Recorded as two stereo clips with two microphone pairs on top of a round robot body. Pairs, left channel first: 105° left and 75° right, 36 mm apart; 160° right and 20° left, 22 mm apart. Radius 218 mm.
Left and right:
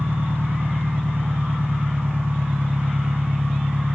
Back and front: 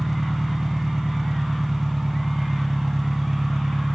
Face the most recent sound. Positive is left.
turn(degrees=-55)